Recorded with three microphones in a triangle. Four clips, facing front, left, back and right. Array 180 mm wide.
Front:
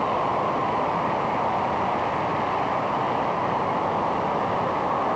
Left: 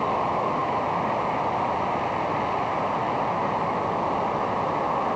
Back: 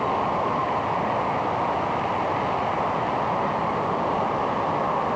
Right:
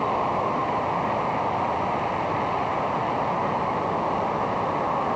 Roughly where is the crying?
No crying in this recording.